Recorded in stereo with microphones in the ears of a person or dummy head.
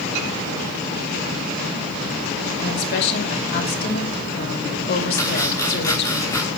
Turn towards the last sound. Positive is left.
turn(degrees=15)  # may be behind; listen again after turning